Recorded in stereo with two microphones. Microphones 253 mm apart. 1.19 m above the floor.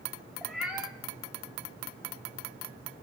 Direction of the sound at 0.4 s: 5° right (ahead or behind).